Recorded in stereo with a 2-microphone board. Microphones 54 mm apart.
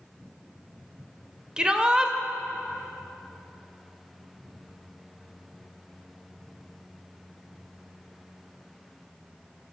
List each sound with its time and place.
1.6 s a shout: 15° right (ahead or behind), 0.9 m